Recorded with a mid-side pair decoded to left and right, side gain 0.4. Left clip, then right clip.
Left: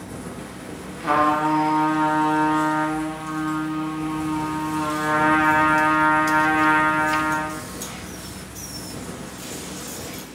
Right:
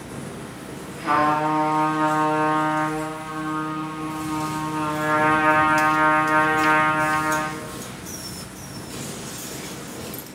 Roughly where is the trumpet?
Ahead.